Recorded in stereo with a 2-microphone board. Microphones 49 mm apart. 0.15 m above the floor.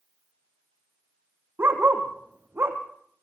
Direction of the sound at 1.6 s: 50° right (ahead or behind).